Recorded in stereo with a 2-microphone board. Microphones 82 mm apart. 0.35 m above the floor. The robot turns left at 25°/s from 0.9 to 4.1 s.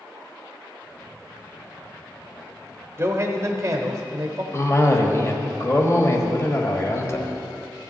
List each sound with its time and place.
3.0 s a man speaking: 35° right (ahead or behind), 0.9 m; by 4.4 s 30° right (ahead or behind), 0.9 m
4.5 s a cough: 35° left (ahead or behind), 1.3 m